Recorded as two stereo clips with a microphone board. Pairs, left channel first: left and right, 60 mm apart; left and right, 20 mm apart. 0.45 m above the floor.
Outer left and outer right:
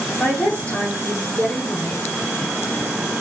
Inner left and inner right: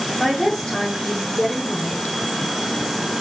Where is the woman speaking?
45° left (ahead or behind), 4 m.